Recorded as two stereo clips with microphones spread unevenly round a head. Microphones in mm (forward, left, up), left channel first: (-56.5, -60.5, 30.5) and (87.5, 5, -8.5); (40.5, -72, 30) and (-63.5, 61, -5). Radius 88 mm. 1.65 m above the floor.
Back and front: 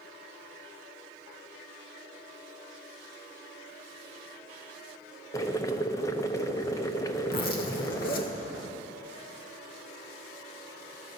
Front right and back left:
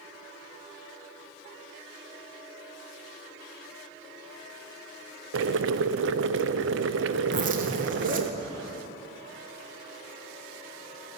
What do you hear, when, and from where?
5.3 s boiling: 145° left, 0.5 m
7.3 s a zipper: 175° left, 1.3 m